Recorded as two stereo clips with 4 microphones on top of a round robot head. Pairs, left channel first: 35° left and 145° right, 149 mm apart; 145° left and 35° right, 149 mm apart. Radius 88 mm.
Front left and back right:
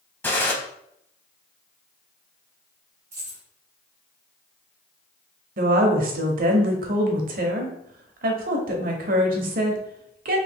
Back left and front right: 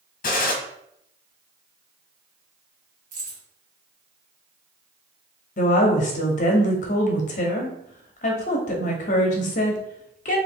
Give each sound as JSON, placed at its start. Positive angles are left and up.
{"t": 0.2, "sound": "a gunshot", "azimuth_deg": 115, "distance_m": 0.7}
{"t": 3.1, "sound": "keys jangling", "azimuth_deg": -70, "distance_m": 1.3}
{"t": 5.6, "sound": "a woman speaking", "azimuth_deg": -175, "distance_m": 0.8}